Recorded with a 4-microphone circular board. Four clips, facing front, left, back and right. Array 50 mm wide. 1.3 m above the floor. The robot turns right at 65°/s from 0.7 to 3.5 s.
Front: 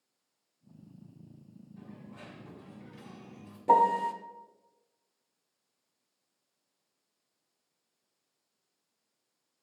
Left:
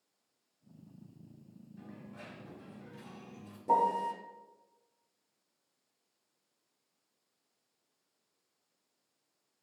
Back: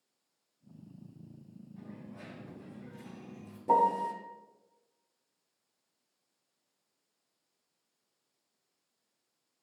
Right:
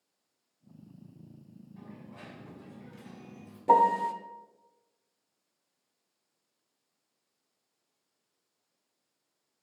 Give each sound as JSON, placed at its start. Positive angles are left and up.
{"t": 1.8, "sound": "a dropped coin", "azimuth_deg": -95, "distance_m": 5.5}
{"t": 3.7, "sound": "a piano", "azimuth_deg": -45, "distance_m": 1.0}